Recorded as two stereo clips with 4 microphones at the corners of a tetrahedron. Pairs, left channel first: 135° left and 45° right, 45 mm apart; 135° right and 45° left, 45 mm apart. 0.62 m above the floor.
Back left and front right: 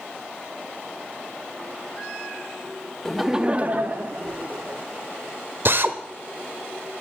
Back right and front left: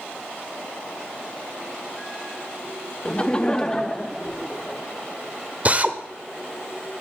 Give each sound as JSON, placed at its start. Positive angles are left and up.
{"t": 3.0, "sound": "laughter", "azimuth_deg": -165, "distance_m": 0.6}
{"t": 5.7, "sound": "a drill", "azimuth_deg": -10, "distance_m": 1.0}